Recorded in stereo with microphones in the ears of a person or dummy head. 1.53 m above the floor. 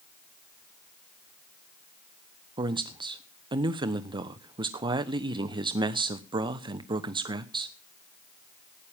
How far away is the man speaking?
About 0.9 m.